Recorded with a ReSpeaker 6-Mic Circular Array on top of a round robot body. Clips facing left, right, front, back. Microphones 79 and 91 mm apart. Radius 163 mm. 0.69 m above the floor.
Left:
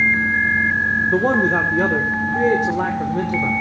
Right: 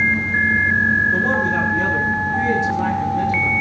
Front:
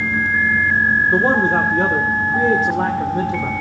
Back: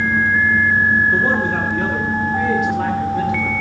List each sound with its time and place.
1.1 s a man speaking: 55° left, 2 m